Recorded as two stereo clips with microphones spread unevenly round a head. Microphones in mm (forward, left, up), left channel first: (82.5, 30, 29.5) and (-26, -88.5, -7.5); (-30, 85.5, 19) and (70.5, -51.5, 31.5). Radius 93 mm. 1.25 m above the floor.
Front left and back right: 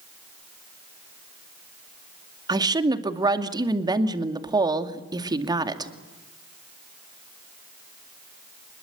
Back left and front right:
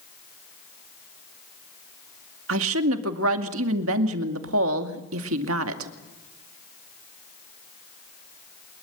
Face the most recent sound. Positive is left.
turn(degrees=-65)